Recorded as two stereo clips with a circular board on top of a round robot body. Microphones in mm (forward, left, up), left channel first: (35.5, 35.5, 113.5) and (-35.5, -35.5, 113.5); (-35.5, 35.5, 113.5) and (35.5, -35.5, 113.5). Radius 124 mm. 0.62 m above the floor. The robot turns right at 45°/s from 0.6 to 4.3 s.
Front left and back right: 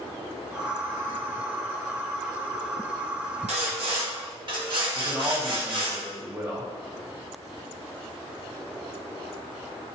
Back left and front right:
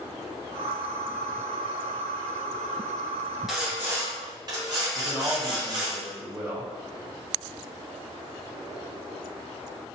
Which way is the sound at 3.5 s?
135° right.